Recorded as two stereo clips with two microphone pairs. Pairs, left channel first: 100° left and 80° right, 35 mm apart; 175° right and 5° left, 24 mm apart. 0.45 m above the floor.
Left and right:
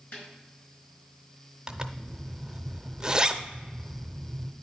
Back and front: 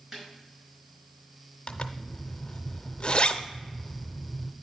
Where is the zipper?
140° right, 0.5 m.